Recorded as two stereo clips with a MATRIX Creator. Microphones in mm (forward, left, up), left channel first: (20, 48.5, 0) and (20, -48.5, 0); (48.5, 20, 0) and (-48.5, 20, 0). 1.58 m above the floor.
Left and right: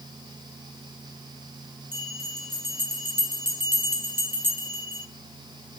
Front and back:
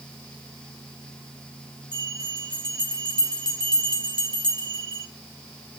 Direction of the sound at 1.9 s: 25° right.